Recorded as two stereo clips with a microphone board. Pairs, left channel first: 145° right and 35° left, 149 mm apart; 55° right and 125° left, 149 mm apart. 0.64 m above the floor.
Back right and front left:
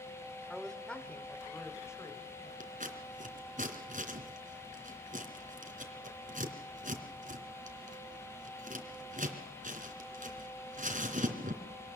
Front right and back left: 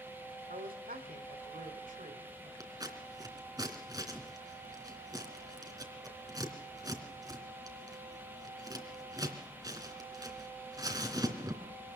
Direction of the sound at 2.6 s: 60° left.